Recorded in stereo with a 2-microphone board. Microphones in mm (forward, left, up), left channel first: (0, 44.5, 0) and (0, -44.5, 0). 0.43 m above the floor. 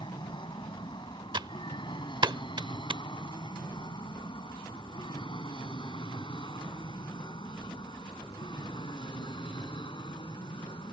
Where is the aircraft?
60° left (ahead or behind); by 10.9 s 65° left (ahead or behind).